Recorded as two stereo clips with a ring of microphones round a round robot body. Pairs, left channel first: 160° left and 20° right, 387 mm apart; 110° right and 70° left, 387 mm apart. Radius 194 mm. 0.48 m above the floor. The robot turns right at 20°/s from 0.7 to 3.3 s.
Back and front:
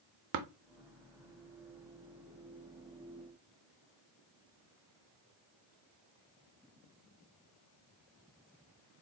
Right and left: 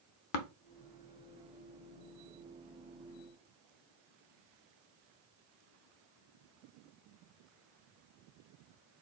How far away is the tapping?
About 0.6 m.